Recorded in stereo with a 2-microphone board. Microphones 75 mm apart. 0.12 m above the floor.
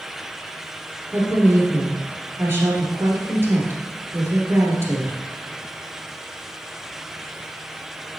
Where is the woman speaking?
30° right (ahead or behind), 1.9 m.